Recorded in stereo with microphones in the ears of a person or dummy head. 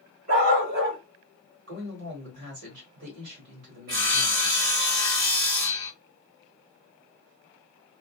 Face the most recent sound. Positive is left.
turn(degrees=-55)  # may be behind; listen again after turning